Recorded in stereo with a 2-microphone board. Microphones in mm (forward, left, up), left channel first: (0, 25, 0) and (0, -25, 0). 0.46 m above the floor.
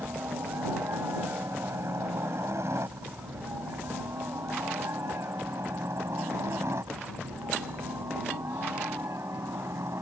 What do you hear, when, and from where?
0.0 s a helicopter: 60° right (ahead or behind); by 10.0 s 65° right (ahead or behind)